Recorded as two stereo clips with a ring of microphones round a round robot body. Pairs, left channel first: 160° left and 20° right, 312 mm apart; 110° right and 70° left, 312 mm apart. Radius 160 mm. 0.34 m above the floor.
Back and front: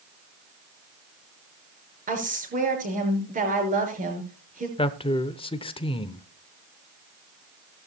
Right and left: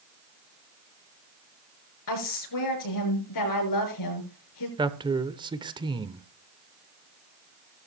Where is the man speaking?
115° left, 0.8 m.